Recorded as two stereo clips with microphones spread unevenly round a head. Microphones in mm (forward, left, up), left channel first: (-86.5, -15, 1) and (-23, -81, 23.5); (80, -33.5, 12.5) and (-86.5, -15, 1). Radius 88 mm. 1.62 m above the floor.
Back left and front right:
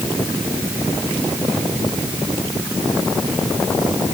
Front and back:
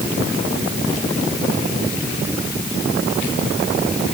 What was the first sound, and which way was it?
Only background noise.